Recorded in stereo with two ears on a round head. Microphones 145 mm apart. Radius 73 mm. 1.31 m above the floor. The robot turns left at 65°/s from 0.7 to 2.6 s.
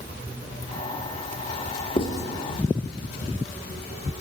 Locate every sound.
2.0 s writing: 35° left (ahead or behind), 1.5 m; by 2.2 s 15° left (ahead or behind), 1.5 m